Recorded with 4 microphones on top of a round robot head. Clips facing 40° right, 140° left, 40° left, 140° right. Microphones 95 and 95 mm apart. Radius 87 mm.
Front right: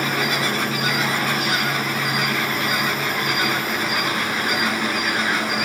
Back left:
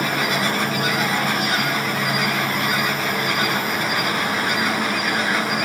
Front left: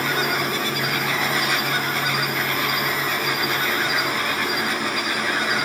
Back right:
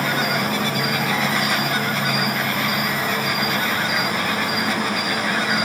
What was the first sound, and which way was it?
An insect, 170° right.